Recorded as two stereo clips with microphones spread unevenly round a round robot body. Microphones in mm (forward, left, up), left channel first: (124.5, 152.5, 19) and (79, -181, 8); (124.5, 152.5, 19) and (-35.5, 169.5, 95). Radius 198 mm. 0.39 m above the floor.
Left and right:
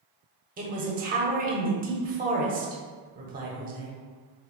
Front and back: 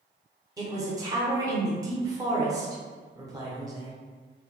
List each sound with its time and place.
0.6 s a man speaking: 85° right, 0.8 m